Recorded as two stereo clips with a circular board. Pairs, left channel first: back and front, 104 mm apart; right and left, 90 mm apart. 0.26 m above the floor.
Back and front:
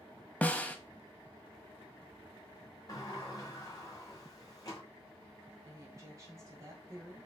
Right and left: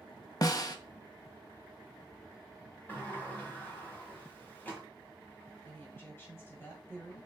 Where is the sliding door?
150° right, 1.5 m.